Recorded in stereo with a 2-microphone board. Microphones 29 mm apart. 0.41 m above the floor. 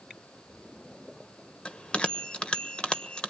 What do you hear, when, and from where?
1.6 s a bell: 40° left (ahead or behind), 1.2 m